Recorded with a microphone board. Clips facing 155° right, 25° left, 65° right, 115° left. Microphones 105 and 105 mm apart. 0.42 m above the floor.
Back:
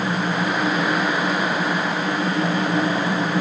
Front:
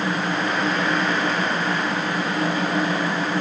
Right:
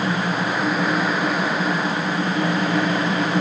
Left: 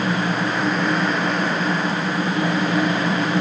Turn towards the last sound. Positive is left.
No sound to turn to.